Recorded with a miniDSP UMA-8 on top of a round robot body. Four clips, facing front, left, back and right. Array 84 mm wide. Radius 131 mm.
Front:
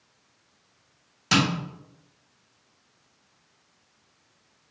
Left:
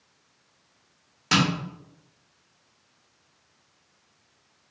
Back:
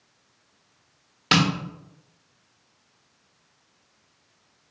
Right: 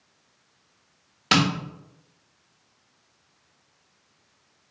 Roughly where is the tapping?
Behind right.